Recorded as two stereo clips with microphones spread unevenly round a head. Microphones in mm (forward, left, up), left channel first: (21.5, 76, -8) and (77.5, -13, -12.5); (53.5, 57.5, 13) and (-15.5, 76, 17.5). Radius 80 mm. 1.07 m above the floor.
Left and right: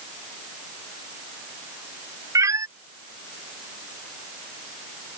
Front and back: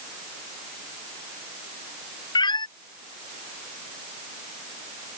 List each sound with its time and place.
2.4 s a cat meowing: 5° left